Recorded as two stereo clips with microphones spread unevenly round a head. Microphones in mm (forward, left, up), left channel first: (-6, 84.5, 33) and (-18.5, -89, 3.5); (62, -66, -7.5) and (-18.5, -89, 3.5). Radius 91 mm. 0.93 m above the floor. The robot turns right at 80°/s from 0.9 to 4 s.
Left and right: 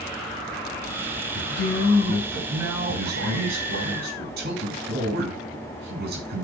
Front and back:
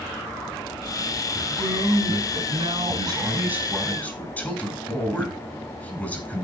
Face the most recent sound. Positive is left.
turn(degrees=-55)